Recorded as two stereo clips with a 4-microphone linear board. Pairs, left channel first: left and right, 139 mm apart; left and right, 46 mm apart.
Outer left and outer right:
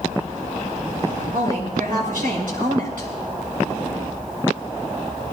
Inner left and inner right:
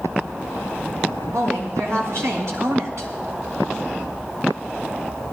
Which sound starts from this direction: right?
A woman speaking, at 1.3 s.